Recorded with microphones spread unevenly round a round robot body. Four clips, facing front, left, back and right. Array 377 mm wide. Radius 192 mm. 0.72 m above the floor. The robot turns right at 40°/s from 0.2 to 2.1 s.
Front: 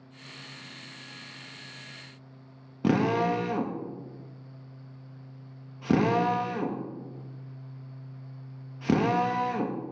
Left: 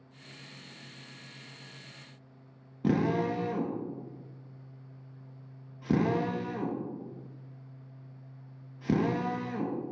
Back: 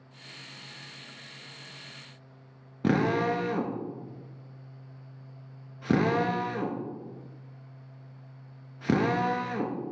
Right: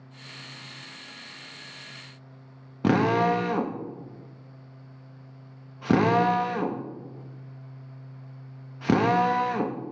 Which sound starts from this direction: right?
A drill, at 2.8 s.